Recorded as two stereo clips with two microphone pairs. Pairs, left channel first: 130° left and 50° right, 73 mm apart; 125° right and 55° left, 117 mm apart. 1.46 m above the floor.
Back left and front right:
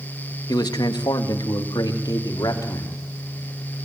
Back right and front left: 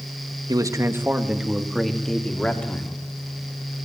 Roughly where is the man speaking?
Left.